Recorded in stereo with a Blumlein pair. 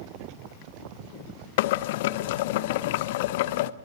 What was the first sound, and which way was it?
Boiling, 50° left.